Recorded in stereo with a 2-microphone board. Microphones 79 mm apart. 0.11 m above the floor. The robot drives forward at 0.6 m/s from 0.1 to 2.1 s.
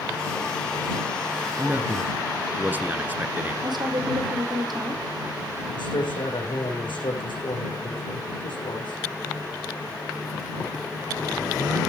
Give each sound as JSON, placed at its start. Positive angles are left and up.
{"t": 1.6, "sound": "a man speaking", "side_deg": -20, "distance_m": 1.4}
{"t": 3.6, "sound": "a woman speaking", "side_deg": -65, "distance_m": 4.0}
{"t": 5.7, "sound": "a man speaking", "side_deg": 75, "distance_m": 6.0}